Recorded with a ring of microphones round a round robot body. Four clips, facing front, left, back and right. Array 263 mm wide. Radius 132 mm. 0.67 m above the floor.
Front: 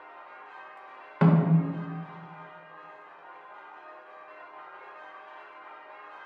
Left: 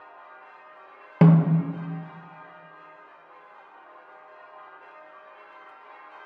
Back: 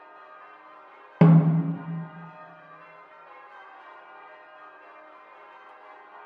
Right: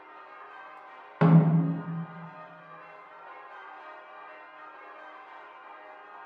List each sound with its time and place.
1.2 s a snare drum: 135° left, 0.6 m